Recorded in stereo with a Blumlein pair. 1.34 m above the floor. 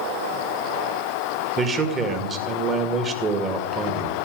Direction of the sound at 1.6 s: 25° right.